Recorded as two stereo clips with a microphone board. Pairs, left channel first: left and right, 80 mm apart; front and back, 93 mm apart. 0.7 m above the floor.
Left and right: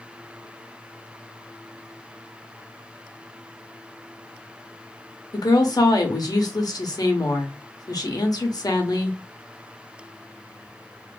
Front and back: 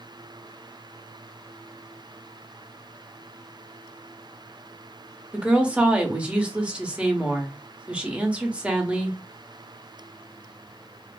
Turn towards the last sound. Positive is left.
turn(degrees=105)